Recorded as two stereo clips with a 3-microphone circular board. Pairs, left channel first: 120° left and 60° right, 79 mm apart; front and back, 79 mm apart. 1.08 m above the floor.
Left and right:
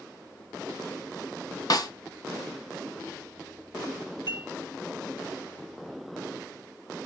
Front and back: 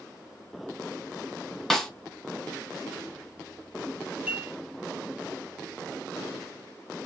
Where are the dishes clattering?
105° left, 1.3 m.